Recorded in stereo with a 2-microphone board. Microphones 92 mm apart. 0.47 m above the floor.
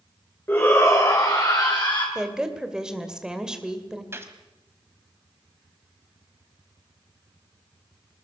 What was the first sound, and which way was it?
A shout, 25° left (ahead or behind).